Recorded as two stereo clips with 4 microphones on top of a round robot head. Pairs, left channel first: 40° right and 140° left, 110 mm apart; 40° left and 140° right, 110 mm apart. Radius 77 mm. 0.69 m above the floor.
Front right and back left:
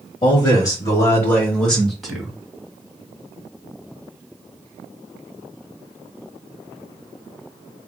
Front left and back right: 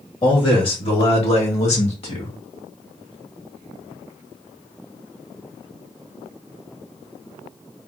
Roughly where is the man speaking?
Ahead.